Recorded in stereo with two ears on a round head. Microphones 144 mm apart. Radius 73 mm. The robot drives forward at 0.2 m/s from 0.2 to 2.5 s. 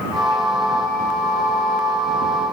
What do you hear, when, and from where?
Only background noise.